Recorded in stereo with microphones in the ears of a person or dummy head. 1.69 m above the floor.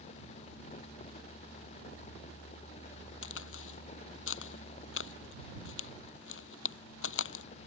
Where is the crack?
75° left (ahead or behind).